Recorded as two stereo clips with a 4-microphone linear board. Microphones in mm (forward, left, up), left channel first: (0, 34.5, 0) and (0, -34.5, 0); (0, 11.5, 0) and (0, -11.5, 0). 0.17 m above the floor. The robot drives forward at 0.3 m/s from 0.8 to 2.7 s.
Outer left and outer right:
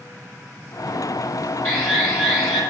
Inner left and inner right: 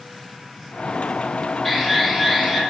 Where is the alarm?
15° left (ahead or behind), 9.5 m.